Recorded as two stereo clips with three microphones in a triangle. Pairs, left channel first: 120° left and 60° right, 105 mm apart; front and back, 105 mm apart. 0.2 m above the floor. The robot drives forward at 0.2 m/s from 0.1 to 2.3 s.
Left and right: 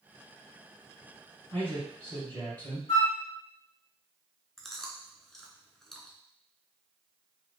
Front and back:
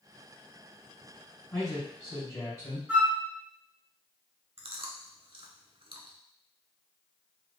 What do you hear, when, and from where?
1.5 s a man speaking: 50° left, 1.9 m; by 2.8 s 55° left, 1.8 m
2.9 s a flute: 105° left, 0.9 m
4.6 s chewing: 155° right, 0.5 m